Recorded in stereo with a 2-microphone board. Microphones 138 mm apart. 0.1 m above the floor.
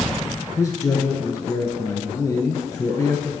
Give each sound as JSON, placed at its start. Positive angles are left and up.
{"t": 0.6, "sound": "a man speaking", "side_deg": 25, "distance_m": 1.5}